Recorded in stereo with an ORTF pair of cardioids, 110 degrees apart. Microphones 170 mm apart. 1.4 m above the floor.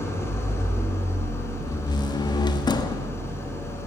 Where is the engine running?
15° left, 5 m.